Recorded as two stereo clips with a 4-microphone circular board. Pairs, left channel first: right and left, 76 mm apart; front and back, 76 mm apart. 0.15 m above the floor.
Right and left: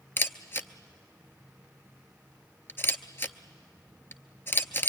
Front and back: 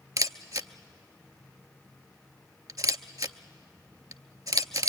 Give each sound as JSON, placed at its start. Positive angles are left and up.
{"t": 0.2, "sound": "a camera shutter", "azimuth_deg": -150, "distance_m": 0.7}